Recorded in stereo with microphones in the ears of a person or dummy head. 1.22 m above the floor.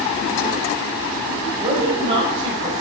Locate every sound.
1.6 s a woman speaking: 30° right (ahead or behind), 4.5 m